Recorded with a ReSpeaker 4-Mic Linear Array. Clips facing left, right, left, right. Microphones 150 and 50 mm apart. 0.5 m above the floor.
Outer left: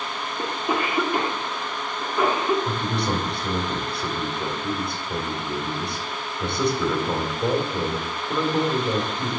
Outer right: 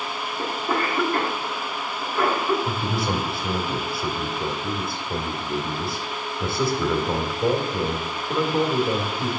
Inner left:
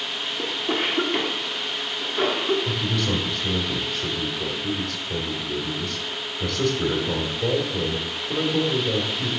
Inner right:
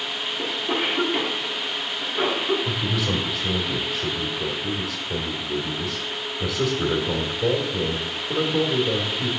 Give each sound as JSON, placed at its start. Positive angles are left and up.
{"t": 0.4, "sound": "a cough", "side_deg": 10, "distance_m": 1.4}
{"t": 2.6, "sound": "a man speaking", "side_deg": -5, "distance_m": 1.7}